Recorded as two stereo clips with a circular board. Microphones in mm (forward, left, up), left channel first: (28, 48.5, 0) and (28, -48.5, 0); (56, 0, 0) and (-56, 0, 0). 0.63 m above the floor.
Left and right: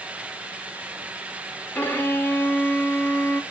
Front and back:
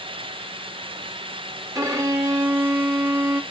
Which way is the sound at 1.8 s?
145° left.